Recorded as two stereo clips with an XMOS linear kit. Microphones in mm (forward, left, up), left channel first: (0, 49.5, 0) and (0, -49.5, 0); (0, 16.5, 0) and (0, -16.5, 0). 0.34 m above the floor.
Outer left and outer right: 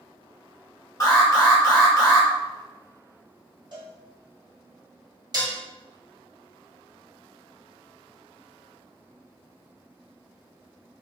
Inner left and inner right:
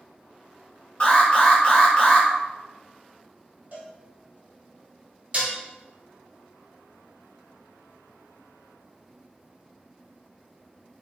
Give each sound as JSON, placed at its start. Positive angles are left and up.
{"t": 1.0, "sound": "an alarm", "side_deg": 35, "distance_m": 1.7}
{"t": 3.7, "sound": "a cowbell", "side_deg": -50, "distance_m": 1.4}
{"t": 5.3, "sound": "dishes clattering", "side_deg": -45, "distance_m": 1.0}